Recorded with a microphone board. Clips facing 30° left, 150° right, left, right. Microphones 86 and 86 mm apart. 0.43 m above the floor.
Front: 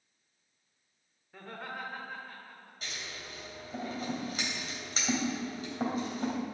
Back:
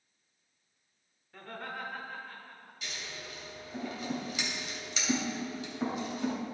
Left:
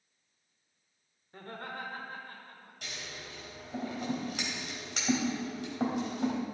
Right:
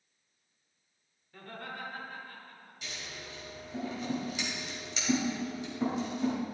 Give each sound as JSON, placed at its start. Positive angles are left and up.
{"t": 1.3, "sound": "laughter", "azimuth_deg": 105, "distance_m": 1.1}
{"t": 2.8, "sound": "scissors", "azimuth_deg": 70, "distance_m": 3.0}